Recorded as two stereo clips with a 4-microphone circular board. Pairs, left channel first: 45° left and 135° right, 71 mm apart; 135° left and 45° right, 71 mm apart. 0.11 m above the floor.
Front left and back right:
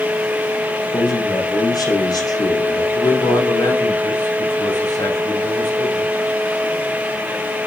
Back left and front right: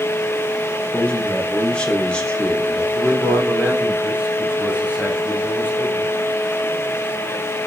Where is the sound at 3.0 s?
30° left, 9 m.